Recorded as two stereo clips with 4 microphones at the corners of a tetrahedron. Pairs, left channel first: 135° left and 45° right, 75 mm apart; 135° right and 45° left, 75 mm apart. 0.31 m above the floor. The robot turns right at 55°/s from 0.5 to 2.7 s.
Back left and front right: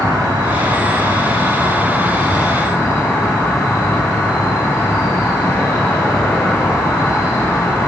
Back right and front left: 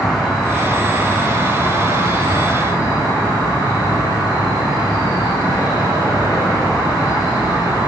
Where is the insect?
45° right, 6 m; by 7.9 s 75° left, 6 m.